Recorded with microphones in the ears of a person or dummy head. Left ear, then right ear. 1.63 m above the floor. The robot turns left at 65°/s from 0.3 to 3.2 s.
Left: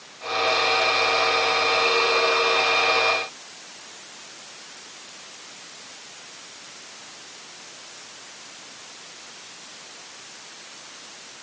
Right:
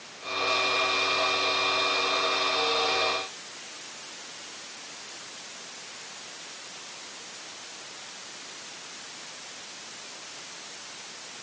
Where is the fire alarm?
No fire alarm in this recording.